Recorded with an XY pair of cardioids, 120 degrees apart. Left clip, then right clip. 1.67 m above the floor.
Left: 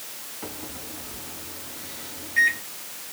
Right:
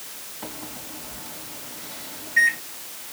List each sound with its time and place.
0.4 s a microwave: 15° right, 2.5 m